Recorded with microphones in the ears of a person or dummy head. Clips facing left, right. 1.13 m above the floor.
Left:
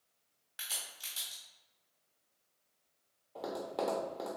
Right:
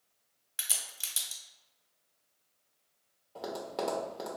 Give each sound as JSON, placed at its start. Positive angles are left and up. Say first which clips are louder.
{"t": 0.6, "sound": "a crack", "louder": "right 2 dB", "side_deg": -45, "distance_m": 1.1}
{"t": 3.4, "sound": "tapping", "louder": "right 1 dB", "side_deg": 0, "distance_m": 0.6}